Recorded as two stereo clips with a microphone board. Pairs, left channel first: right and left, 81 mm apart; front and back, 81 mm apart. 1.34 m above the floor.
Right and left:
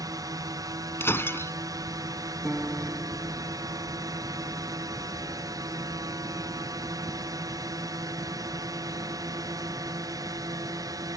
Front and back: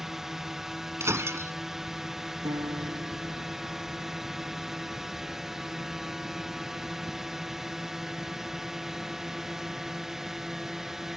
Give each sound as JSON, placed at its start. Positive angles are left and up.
{"t": 0.0, "sound": "a drone", "azimuth_deg": 95}
{"t": 1.0, "sound": "breaking glass", "azimuth_deg": -140}
{"t": 2.5, "sound": "a piano", "azimuth_deg": 160}